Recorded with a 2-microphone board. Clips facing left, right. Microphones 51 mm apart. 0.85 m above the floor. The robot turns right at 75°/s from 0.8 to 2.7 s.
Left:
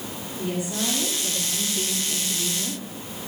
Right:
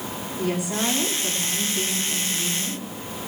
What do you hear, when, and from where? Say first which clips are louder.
0.3 s a woman speaking: right 3 dB; 95° right, 5.5 m; by 2.8 s 45° left, 5.5 m